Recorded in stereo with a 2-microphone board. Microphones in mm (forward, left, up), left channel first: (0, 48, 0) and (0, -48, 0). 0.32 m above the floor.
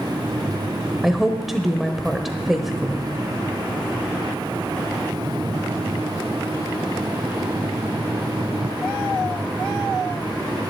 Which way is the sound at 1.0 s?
Centre (ahead or behind).